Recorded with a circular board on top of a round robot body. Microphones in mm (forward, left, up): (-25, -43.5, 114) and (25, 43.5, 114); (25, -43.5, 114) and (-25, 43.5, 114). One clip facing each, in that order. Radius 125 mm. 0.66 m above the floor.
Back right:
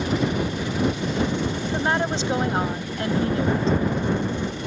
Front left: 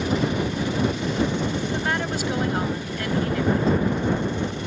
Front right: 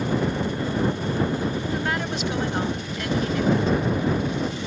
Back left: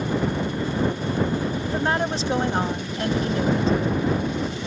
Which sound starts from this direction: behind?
A woman speaking, at 1.6 s.